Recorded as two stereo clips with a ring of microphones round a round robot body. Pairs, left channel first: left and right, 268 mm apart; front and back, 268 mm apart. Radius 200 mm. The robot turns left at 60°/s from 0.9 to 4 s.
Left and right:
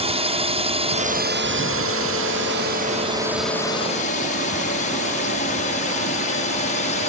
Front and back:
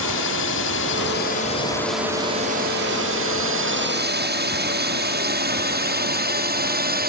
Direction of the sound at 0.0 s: 30° right.